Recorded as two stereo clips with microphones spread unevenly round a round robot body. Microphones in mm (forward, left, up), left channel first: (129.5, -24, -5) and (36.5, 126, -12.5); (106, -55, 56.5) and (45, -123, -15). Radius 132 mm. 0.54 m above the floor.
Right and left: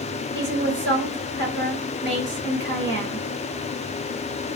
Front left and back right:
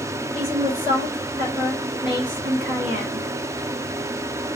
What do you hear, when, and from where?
0.3 s a woman speaking: 155° left, 3.5 m